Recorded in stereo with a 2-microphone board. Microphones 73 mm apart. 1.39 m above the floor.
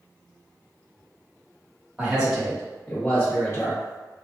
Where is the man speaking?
15° right (ahead or behind), 1.7 m; by 3.8 s 45° left (ahead or behind), 1.5 m.